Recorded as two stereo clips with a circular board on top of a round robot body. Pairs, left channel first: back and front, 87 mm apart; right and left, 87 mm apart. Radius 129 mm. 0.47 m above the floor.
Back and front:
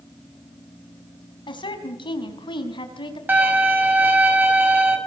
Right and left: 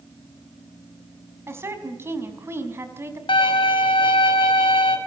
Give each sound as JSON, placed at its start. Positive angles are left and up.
{"t": 1.5, "sound": "a woman speaking", "azimuth_deg": 155, "distance_m": 5.0}
{"t": 3.3, "sound": "a violin", "azimuth_deg": -70, "distance_m": 5.5}